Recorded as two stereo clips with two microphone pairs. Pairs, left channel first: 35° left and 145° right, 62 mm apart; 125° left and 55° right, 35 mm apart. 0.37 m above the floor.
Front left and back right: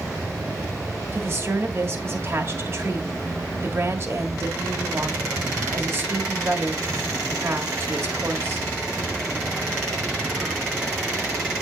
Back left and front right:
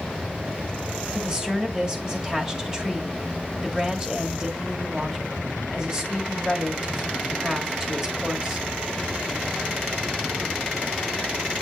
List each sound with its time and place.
1.1 s a woman speaking: 120° right, 1.7 m